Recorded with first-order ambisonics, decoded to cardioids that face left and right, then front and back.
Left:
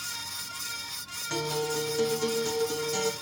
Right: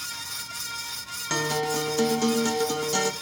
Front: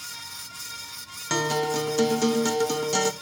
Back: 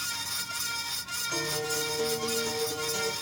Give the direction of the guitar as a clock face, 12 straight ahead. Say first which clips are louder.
Right 4 dB, front 8 dB; 1 o'clock.